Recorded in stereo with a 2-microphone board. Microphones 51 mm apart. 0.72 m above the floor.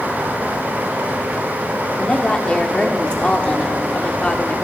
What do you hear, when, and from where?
2.0 s a woman speaking: 20° left (ahead or behind), 1.8 m